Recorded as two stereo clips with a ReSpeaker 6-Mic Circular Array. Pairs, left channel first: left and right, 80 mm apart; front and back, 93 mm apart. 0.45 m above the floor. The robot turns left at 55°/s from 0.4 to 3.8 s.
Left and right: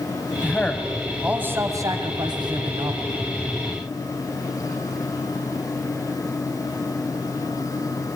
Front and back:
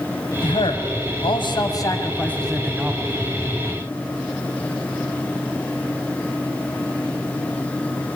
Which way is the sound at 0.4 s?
30° left.